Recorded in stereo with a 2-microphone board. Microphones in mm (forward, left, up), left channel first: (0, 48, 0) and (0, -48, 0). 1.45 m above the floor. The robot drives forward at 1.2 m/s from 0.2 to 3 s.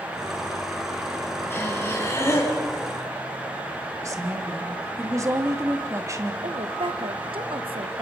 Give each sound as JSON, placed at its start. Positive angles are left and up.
{"t": 1.5, "sound": "breathing", "side_deg": 25, "distance_m": 5.0}
{"t": 4.0, "sound": "a woman speaking", "side_deg": -35, "distance_m": 2.5}
{"t": 6.4, "sound": "a woman speaking", "side_deg": -65, "distance_m": 1.2}